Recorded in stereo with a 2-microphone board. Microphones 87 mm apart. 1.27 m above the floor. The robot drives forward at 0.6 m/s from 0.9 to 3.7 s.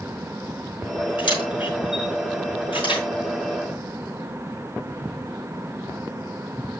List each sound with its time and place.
1.2 s a camera shutter: 80° left, 4.5 m; by 3.0 s 75° left (ahead or behind), 4.5 m